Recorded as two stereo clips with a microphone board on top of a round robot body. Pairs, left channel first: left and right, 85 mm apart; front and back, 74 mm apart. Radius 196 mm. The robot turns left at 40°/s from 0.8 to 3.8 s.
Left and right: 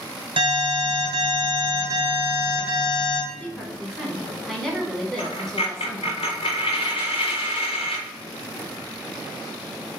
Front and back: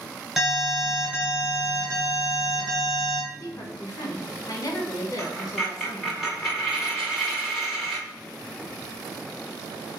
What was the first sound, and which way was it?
An alarm, 95° right.